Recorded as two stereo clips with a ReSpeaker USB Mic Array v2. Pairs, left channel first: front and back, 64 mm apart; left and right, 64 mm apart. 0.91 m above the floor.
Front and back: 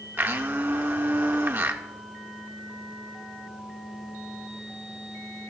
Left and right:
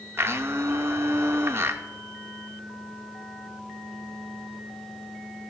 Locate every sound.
0.2 s a blender: 130° right, 0.7 m